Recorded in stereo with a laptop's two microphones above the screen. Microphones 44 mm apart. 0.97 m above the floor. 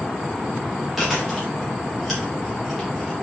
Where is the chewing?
5° right (ahead or behind), 3.5 m.